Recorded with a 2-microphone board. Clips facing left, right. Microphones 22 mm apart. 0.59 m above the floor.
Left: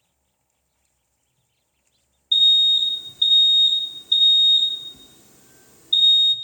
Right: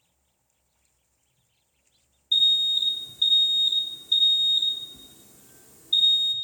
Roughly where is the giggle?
No giggle in this recording.